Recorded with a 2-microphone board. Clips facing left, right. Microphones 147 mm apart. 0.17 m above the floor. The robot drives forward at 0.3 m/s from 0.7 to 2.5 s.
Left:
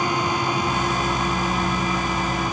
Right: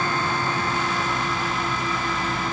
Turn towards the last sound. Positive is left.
No sound to turn to.